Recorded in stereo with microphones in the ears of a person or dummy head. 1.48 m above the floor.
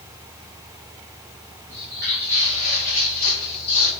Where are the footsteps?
5° right (ahead or behind), 1.5 m; by 3.9 s 65° left (ahead or behind), 3.5 m.